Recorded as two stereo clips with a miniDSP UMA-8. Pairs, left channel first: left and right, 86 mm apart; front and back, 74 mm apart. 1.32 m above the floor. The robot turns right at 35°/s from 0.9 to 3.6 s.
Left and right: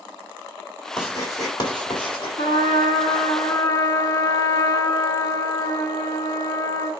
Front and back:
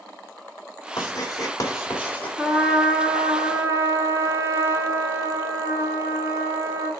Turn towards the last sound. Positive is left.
turn(degrees=130)